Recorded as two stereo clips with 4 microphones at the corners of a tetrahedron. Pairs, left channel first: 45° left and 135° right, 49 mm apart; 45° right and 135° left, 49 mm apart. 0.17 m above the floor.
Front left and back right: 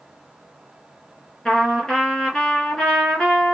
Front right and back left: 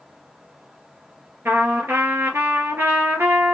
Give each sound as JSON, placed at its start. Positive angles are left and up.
{"t": 1.4, "sound": "a trumpet", "azimuth_deg": 120, "distance_m": 2.5}